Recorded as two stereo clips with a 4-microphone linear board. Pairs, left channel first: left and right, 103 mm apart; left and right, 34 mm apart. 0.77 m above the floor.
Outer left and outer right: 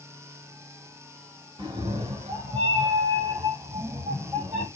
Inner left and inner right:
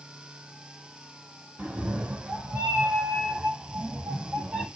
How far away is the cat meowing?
About 0.9 m.